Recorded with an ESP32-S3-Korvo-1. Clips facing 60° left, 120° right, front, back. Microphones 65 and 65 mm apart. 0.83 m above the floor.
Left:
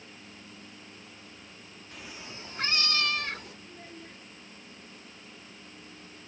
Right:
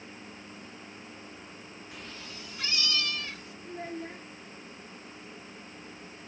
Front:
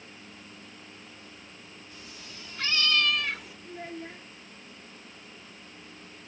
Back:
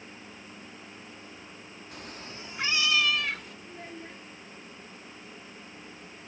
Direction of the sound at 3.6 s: 70° right.